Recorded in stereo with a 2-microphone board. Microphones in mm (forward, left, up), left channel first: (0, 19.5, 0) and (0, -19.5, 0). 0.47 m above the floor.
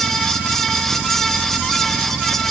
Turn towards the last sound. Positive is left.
No sound to turn to.